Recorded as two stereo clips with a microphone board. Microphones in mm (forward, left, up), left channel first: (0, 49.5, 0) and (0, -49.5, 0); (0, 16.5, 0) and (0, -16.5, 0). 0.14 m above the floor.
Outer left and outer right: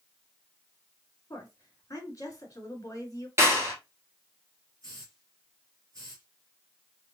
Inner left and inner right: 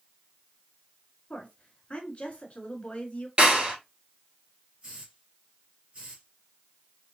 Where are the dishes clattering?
I don't hear dishes clattering.